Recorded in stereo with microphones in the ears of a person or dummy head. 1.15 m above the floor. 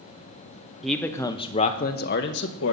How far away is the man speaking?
About 0.9 m.